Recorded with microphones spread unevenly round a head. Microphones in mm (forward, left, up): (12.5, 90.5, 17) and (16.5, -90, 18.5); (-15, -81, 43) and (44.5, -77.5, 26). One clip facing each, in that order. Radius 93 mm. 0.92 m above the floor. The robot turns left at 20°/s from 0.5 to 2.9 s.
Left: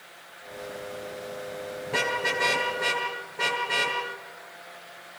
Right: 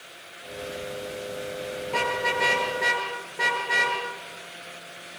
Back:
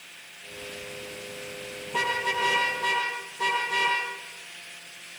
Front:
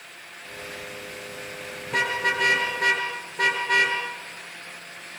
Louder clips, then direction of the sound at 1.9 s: Right 1 dB, front 3 dB; 15° left.